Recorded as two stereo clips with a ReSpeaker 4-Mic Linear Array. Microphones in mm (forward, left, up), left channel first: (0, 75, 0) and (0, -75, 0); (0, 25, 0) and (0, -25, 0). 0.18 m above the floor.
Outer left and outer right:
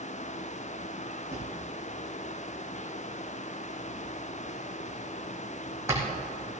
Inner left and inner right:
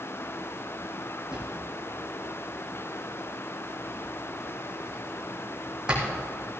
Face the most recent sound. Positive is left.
turn(degrees=-20)  # may be behind; listen again after turning